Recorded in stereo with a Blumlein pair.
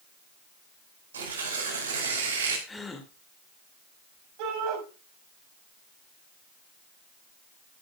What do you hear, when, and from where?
1.1 s tearing paper: 65° right, 5 m
2.7 s a gasp: 10° left, 2 m
4.4 s a shout: 45° right, 6 m